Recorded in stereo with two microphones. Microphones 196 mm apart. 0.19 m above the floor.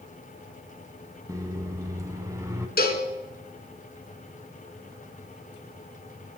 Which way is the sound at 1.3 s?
15° right (ahead or behind).